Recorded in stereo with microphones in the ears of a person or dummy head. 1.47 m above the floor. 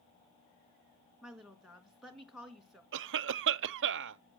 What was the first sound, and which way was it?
A woman speaking, centre (ahead or behind).